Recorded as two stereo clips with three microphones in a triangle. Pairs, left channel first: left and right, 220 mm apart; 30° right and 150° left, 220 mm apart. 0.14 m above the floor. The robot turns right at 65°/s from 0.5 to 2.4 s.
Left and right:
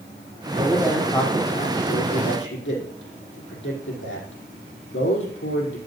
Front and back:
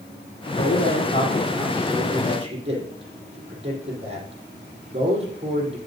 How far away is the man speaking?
About 5 m.